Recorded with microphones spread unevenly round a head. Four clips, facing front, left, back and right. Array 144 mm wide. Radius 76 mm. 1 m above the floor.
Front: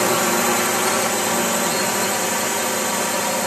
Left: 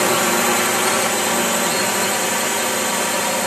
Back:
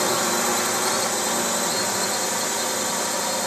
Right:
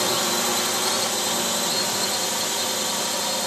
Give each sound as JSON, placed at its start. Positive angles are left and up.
{"t": 0.0, "sound": "a drone", "azimuth_deg": 60}